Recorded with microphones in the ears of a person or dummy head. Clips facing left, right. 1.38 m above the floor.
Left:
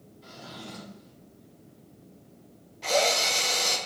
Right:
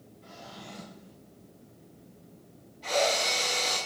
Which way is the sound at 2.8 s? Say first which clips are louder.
Left 2 dB; 65° left (ahead or behind).